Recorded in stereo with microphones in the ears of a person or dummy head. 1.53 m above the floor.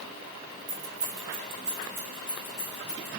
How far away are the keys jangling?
About 1.4 m.